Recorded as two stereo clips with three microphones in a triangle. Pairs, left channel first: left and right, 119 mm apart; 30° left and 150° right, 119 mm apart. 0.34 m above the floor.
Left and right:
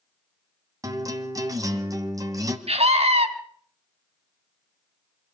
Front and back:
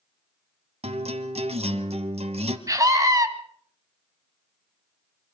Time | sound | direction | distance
0.8 | a guitar | 145° right | 1.8 m
2.7 | a scream | 95° right | 3 m